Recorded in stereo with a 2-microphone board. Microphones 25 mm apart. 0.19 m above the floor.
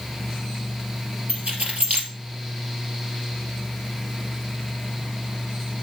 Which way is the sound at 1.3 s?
65° right (ahead or behind).